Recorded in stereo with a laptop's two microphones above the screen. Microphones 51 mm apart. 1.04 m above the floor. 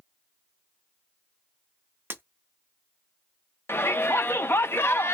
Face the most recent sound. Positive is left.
turn(degrees=50)  # may be behind; listen again after turning